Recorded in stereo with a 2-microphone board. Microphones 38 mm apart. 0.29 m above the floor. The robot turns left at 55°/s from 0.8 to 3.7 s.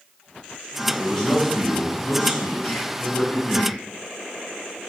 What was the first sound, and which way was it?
A man speaking, 175° right.